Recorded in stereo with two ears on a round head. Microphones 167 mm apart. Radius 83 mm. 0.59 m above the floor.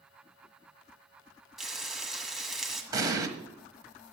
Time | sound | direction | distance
1.6 | frying | centre (ahead or behind) | 1.5 m
2.9 | an explosion | 20° right (ahead or behind) | 1.2 m